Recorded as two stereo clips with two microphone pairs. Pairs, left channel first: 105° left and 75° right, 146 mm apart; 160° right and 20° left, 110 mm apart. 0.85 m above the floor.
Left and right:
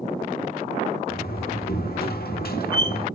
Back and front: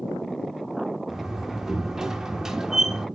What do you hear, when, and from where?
1.1 s a door slam: 105° left, 1.6 m